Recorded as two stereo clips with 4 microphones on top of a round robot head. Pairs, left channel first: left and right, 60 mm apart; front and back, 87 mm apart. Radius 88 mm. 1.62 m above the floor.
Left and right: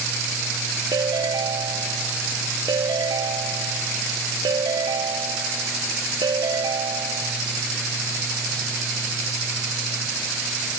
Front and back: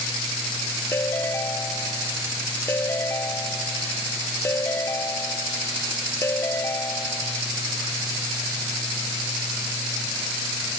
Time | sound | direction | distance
0.9 | a ringtone | 70° right | ?